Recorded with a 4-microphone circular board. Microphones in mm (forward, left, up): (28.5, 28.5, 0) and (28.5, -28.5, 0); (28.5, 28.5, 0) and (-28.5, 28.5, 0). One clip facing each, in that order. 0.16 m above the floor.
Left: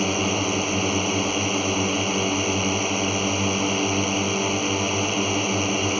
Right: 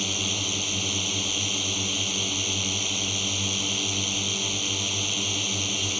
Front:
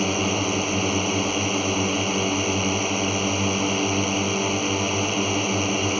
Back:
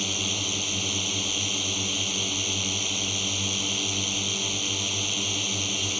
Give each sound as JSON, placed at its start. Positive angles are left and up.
{"t": 0.0, "sound": "a drone", "azimuth_deg": 45}